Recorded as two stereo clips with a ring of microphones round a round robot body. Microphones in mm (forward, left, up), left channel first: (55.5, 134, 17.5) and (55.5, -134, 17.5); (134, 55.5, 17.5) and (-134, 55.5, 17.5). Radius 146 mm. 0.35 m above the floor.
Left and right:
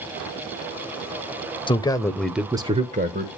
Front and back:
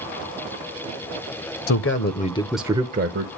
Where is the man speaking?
20° left, 1.6 m; by 3.3 s 145° right, 1.5 m.